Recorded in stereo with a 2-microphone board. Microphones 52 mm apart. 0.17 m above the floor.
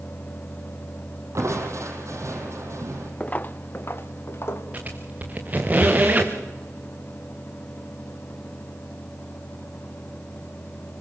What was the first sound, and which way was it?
Crushing, 70° right (ahead or behind).